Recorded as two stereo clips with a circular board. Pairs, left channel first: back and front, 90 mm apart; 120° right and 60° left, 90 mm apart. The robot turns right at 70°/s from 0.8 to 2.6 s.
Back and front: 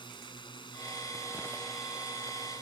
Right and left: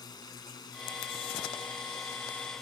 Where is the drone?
160° right; by 2.6 s 35° right.